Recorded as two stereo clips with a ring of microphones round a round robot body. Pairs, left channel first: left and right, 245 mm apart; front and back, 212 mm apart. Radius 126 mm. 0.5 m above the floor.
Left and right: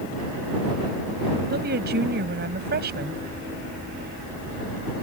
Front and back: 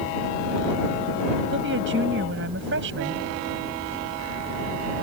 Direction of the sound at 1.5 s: 140° right.